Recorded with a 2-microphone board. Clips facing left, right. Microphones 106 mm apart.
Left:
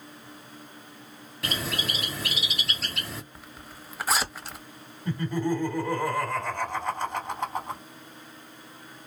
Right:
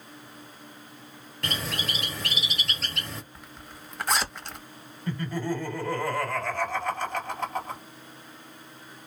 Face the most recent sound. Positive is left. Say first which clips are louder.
# left 3 dB
turn(degrees=20)  # may be behind; listen again after turning